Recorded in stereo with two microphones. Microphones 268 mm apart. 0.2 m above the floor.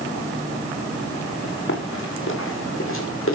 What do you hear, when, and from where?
1.7 s running footsteps: 50° left (ahead or behind), 8.5 m